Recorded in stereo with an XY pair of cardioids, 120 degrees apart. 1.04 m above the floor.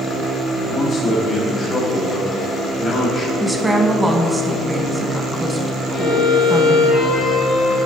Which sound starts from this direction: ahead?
A woman speaking, at 3.4 s.